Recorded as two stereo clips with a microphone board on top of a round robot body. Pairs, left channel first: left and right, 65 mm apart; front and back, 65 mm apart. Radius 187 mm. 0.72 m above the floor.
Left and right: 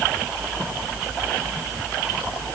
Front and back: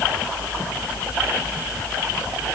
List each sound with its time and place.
Only background noise.